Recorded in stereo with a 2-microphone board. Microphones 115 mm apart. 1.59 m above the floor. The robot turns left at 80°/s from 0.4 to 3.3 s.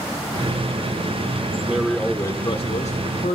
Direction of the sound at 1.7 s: 165° right.